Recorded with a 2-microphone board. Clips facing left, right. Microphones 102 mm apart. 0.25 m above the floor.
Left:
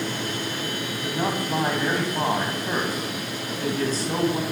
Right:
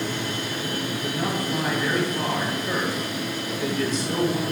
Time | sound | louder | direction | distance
0.9 | a man speaking | left 3 dB | 40° left (ahead or behind) | 1.4 m